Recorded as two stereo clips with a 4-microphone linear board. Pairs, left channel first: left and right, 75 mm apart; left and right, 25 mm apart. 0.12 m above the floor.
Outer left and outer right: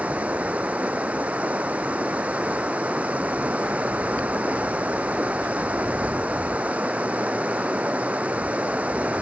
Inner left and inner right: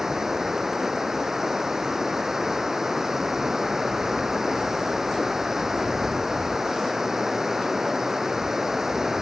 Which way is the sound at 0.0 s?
15° right (ahead or behind).